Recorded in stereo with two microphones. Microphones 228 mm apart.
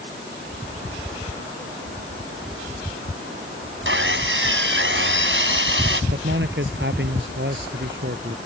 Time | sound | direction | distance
3.9 | sawing | 60° right (ahead or behind) | ?
6.1 | a man speaking | 55° right (ahead or behind) | ?